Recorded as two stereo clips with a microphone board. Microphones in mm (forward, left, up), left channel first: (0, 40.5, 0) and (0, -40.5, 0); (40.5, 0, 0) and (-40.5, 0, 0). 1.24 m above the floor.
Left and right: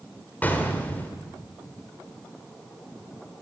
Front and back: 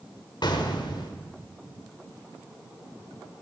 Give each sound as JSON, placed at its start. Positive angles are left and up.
{"t": 0.4, "sound": "an explosion", "azimuth_deg": 20, "distance_m": 1.8}